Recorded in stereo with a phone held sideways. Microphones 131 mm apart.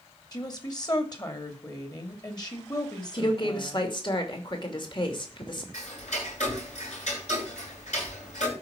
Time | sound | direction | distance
0.3 | a woman speaking | 30° left (ahead or behind) | 2.5 m
3.1 | a woman speaking | 40° left (ahead or behind) | 2.5 m
5.7 | ticking | 70° left (ahead or behind) | 8 m